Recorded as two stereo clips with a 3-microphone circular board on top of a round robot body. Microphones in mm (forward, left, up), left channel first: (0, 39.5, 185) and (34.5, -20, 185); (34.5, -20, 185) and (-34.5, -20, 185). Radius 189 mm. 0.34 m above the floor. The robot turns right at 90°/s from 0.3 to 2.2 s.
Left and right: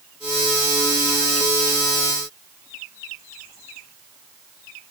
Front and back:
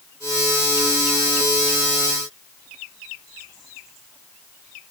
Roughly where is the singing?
No singing in this recording.